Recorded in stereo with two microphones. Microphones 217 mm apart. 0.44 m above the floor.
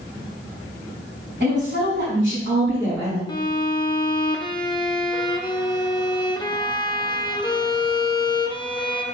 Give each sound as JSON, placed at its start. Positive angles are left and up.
{"t": 1.4, "sound": "a woman speaking", "side_deg": -65, "distance_m": 4.0}
{"t": 3.3, "sound": "a violin", "side_deg": 20, "distance_m": 0.6}